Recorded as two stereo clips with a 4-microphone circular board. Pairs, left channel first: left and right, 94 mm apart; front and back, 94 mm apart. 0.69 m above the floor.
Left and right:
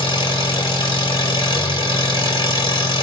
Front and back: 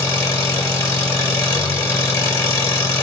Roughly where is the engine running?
Ahead left.